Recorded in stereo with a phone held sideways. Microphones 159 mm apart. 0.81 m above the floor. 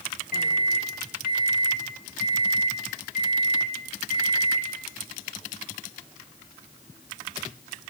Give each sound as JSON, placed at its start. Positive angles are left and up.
{"t": 0.3, "sound": "a microwave", "side_deg": 70, "distance_m": 1.2}